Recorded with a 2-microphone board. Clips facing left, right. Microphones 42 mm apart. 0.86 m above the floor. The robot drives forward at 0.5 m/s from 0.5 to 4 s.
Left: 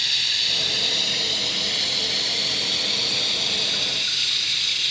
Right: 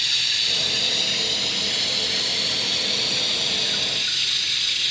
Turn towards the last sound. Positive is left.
turn(degrees=0)  # may be behind; listen again after turning